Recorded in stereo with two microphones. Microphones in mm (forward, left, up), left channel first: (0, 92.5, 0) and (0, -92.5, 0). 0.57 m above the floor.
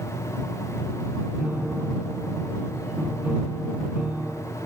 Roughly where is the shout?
I don't hear a shout.